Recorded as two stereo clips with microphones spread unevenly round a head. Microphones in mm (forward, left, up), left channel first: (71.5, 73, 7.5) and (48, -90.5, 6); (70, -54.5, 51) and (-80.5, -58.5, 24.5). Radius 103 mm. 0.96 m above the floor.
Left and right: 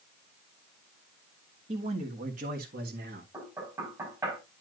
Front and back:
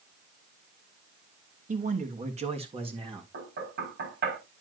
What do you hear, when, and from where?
1.7 s a man speaking: 155° right, 1.6 m; by 3.2 s 130° right, 1.7 m
3.3 s knocking: straight behind, 6 m